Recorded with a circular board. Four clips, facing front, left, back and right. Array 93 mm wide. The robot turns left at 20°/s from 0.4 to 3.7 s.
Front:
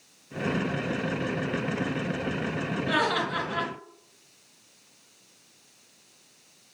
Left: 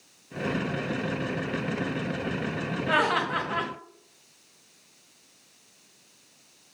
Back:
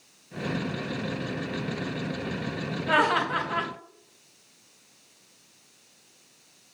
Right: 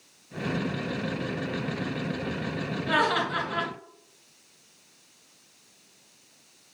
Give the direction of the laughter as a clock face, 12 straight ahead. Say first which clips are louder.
Even, back 4 dB; 7 o'clock.